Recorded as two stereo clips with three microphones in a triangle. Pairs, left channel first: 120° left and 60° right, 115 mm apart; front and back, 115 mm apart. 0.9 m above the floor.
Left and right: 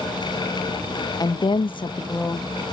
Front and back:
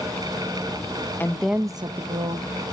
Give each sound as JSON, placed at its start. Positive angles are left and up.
{"t": 1.2, "sound": "a woman speaking", "azimuth_deg": 70, "distance_m": 0.8}